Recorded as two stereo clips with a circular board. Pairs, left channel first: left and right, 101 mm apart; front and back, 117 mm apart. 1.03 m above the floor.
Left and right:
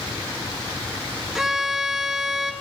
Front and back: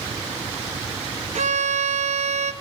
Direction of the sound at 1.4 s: 175° right.